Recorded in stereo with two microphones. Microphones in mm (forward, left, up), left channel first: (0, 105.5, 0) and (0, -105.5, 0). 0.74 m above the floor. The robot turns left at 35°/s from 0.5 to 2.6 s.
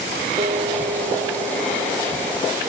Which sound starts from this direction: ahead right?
A guitar, at 0.4 s.